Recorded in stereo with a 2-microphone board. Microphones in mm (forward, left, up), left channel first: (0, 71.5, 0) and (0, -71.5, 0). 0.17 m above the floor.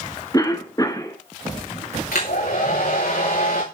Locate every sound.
0.3 s a cough: 25° left (ahead or behind), 2.5 m
2.1 s a hair dryer: 80° left, 7 m